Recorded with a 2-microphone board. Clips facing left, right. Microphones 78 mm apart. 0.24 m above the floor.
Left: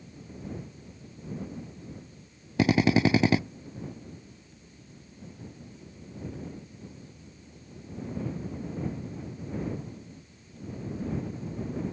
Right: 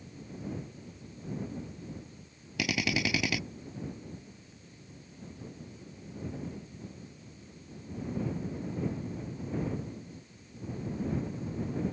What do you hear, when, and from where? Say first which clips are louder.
2.6 s a drill: left 9 dB; 35° left (ahead or behind)